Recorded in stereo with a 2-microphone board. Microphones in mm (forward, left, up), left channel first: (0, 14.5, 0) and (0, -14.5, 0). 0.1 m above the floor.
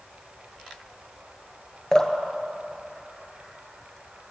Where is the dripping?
20° left (ahead or behind), 0.9 m.